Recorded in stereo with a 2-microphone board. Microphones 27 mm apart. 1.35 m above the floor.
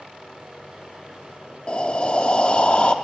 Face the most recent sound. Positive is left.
turn(degrees=40)  # may be behind; listen again after turning